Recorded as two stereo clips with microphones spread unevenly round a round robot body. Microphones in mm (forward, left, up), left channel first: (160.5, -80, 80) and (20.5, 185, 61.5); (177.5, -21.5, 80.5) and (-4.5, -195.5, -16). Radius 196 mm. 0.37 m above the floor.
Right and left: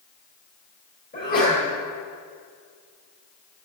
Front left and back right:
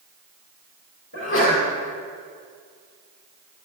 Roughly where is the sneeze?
Ahead.